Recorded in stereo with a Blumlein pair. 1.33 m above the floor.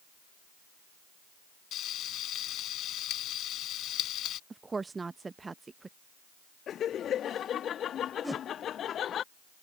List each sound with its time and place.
1.7 s frying: 30° left
4.5 s a woman speaking: 15° right
6.7 s laughter: 25° left
8.2 s a whoosh: 5° right